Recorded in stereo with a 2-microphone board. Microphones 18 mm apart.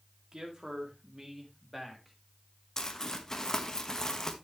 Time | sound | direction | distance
0.3 | a man speaking | 40° right (ahead or behind) | 3 m
2.8 | crumpling | 25° left (ahead or behind) | 1.2 m